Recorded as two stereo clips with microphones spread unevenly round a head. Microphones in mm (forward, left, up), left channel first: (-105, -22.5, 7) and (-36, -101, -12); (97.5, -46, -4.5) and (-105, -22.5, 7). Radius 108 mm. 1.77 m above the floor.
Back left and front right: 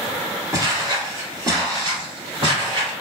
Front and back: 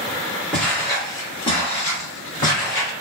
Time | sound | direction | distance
0.5 | footsteps | 90° right | 1.8 m